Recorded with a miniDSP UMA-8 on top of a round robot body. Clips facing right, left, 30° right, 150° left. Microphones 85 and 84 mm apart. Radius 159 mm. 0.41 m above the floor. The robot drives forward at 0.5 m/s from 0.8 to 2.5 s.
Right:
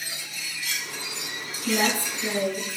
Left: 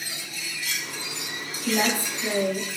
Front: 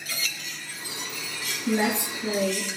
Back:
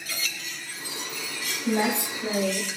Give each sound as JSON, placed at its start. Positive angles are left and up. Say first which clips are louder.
{"t": 1.6, "sound": "a woman speaking", "louder": "even, even", "azimuth_deg": 175, "distance_m": 1.6}